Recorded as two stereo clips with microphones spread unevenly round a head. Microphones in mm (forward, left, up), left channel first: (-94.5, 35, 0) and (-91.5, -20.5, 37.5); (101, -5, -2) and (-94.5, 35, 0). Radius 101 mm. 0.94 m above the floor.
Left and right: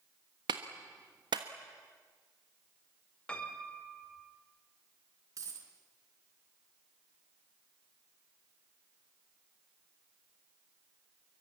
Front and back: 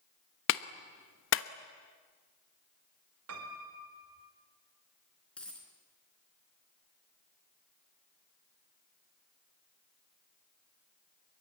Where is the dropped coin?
95° right, 4.5 m.